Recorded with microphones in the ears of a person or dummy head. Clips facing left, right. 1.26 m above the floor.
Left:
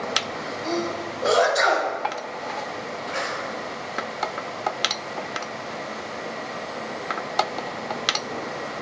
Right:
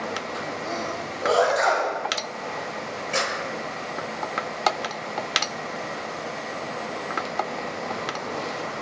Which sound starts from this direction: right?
A clap, at 3.1 s.